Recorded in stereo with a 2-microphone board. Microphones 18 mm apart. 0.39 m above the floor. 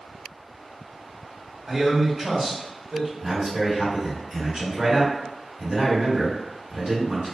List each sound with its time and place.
1.7 s a man speaking: 25° right (ahead or behind), 1.1 m
3.2 s a man speaking: 45° right (ahead or behind), 1.8 m